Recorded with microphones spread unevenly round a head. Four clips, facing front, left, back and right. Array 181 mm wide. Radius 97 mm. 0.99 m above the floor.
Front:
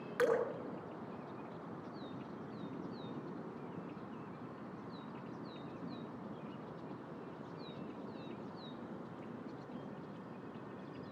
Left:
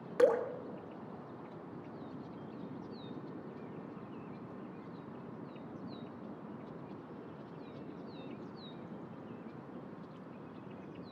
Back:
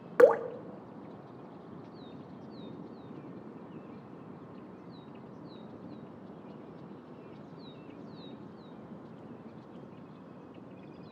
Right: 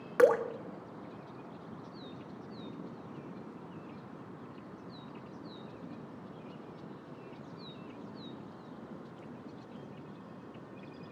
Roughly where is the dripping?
Behind.